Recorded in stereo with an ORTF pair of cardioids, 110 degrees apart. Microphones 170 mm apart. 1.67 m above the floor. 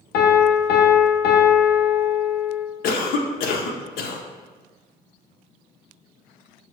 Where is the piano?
70° left, 0.7 m.